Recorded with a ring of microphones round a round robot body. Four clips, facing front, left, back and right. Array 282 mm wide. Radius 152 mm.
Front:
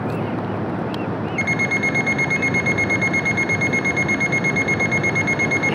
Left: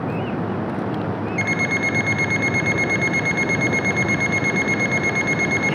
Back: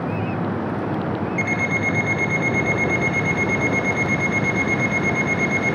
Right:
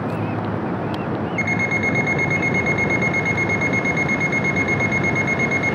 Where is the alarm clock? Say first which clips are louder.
Even, even; 60° left, 3 m.